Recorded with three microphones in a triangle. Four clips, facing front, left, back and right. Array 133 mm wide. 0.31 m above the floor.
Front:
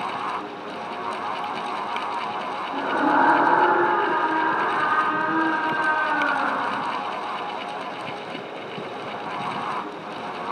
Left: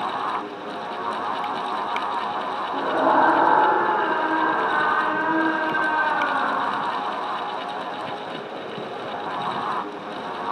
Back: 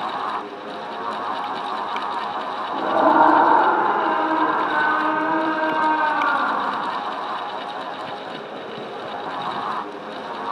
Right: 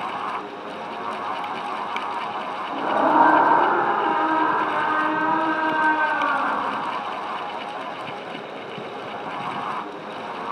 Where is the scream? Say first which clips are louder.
Right 1 dB, back 5 dB; 160° right, 8 m.